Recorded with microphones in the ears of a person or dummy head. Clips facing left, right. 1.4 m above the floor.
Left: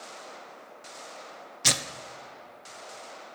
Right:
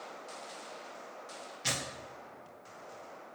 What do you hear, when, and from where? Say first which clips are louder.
1.6 s tearing paper: left 6 dB; 60° left (ahead or behind), 0.6 m